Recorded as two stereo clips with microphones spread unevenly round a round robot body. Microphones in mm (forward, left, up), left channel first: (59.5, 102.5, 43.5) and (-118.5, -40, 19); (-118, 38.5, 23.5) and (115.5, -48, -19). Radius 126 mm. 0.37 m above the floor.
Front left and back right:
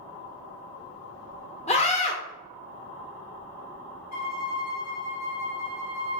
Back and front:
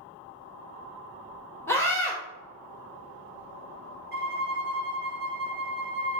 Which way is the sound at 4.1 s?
35° left.